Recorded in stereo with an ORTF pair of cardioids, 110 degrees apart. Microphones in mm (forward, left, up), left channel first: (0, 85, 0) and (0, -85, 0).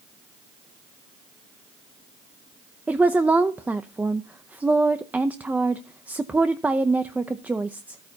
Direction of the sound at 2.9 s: 10° right.